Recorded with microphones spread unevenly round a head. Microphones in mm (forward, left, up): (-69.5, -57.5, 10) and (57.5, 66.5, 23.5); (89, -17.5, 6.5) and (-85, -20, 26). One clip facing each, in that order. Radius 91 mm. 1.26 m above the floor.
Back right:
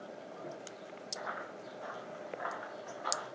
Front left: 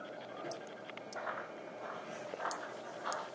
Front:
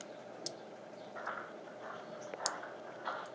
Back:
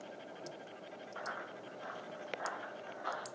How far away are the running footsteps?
About 3.5 m.